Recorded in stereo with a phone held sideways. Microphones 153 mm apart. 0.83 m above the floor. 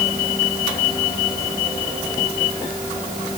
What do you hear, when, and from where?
Only background noise.